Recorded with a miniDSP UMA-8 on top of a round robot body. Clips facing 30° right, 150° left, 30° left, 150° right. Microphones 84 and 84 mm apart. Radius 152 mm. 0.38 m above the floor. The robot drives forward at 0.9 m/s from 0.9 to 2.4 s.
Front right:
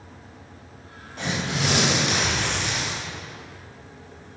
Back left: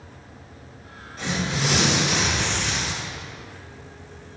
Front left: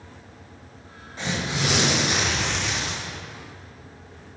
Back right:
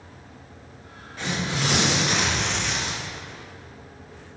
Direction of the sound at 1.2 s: 40° right.